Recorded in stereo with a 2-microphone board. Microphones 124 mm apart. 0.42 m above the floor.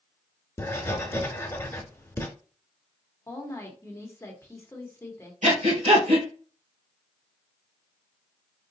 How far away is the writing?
About 0.8 m.